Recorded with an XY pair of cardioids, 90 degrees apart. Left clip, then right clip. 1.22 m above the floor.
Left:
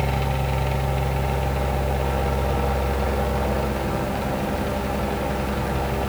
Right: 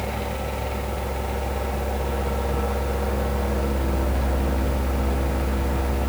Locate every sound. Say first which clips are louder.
0.0 s a machine running: left 3 dB; 50° left, 1.1 m